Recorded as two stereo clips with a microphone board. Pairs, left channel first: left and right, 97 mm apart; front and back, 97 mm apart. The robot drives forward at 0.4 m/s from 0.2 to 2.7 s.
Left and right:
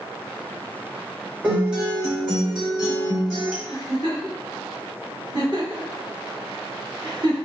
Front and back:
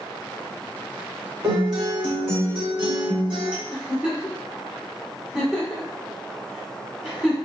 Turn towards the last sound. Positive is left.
turn(degrees=-100)